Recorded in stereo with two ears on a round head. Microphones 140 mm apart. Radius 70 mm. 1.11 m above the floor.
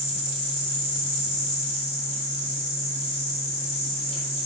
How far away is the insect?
About 6.5 m.